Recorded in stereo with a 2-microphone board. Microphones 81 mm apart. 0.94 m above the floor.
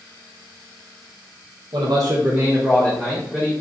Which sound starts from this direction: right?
A man speaking, at 1.7 s.